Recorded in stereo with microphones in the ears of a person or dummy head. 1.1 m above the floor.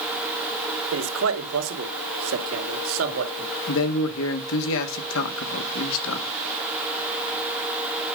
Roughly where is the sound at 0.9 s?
Right.